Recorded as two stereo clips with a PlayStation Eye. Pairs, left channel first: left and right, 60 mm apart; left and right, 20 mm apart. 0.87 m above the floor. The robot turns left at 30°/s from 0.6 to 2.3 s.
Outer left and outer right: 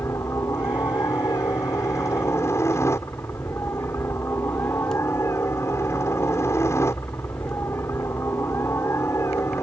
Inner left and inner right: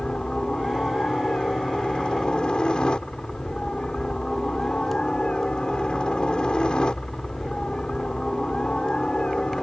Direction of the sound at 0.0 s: 110° left.